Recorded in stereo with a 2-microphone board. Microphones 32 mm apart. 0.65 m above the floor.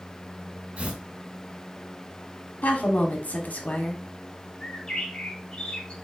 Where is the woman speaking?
55° left (ahead or behind), 1.2 m.